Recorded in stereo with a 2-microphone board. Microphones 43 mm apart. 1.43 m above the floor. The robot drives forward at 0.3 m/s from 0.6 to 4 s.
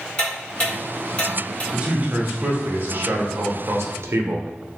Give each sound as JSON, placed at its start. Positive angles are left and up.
{"t": 0.2, "sound": "ticking", "side_deg": 20, "distance_m": 1.3}
{"t": 1.7, "sound": "a man speaking", "side_deg": -35, "distance_m": 1.0}